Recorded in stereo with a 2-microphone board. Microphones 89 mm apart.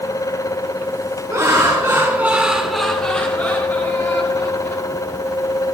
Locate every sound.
1.3 s laughter: 40° right (ahead or behind), 1.6 m; by 4.8 s 30° left (ahead or behind), 3 m